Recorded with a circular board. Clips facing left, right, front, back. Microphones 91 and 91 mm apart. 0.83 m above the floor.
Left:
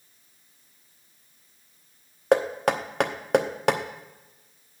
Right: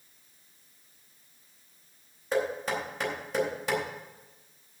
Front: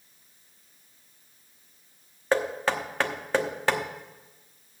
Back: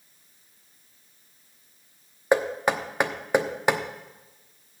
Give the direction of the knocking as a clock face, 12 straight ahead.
8 o'clock.